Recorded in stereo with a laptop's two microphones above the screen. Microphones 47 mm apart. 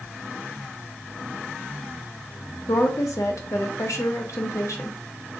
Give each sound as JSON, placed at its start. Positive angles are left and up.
{"t": 2.7, "sound": "a woman speaking", "side_deg": 80, "distance_m": 0.9}